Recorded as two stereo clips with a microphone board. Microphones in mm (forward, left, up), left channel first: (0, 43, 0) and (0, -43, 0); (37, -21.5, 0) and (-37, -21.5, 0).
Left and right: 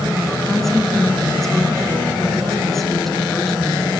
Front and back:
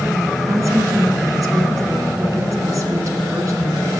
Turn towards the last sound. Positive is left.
turn(degrees=175)